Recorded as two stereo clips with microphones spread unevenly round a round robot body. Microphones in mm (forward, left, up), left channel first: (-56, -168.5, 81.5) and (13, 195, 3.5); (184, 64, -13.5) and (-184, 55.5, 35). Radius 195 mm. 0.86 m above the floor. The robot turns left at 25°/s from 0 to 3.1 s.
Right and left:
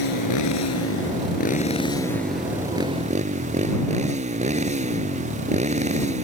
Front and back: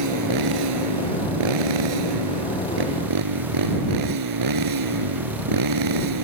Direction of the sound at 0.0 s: 130° right.